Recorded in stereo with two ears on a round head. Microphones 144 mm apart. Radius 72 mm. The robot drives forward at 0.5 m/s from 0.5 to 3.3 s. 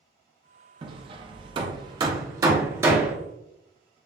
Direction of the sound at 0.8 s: 30° right (ahead or behind).